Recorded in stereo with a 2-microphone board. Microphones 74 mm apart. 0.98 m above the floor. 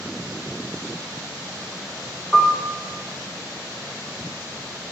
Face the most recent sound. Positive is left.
turn(degrees=5)  # may be behind; listen again after turning